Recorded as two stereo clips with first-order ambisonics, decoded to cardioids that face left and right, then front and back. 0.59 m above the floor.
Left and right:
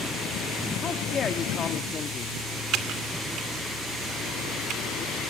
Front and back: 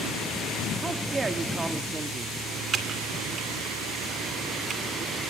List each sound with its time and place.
0.8 s a man speaking: 120° left, 1.0 m
2.7 s typing on a keyboard: 125° right, 2 m